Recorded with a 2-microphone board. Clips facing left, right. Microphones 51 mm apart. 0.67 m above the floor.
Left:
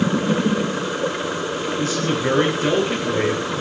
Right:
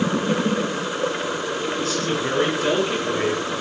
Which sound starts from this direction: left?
A man speaking, at 1.8 s.